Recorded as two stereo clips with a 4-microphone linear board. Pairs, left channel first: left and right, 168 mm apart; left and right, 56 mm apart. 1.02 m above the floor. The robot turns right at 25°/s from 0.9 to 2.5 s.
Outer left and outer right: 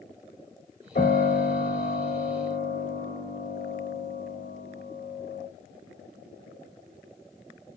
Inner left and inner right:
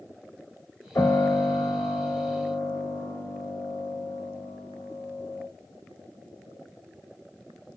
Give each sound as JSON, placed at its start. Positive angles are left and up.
{"t": 0.9, "sound": "a piano", "azimuth_deg": 100, "distance_m": 1.0}